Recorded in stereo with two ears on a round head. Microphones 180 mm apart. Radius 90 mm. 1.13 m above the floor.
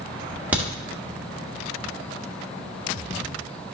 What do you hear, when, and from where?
0.5 s a crack: 5° right (ahead or behind), 1.7 m